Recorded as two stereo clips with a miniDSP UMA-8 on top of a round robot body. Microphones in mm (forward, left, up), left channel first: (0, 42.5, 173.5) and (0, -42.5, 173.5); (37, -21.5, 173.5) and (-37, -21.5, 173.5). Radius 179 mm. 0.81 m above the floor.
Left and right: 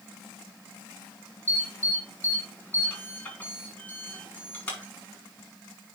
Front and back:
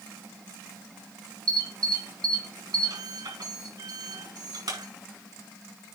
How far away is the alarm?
About 5.5 m.